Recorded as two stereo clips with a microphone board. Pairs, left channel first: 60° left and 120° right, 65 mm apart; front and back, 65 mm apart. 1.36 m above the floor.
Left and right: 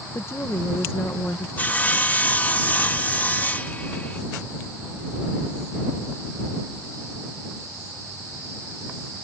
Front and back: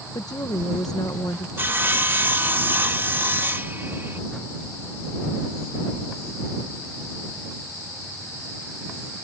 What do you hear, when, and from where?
0.1 s a woman speaking: 10° left
1.6 s sawing: 125° left